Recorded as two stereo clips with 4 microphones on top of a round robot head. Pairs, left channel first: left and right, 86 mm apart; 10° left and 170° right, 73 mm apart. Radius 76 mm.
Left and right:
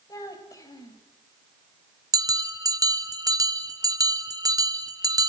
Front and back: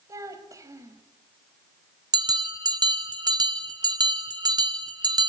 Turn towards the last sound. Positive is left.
turn(degrees=-140)